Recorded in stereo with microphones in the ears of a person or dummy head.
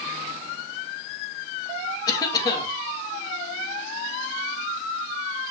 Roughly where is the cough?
Left.